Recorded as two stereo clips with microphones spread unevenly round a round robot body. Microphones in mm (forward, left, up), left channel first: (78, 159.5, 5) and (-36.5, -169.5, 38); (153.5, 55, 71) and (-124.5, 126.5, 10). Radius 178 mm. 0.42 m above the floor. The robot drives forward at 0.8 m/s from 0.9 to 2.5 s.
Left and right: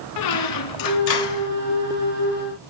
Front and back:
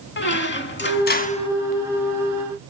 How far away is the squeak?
About 1.1 m.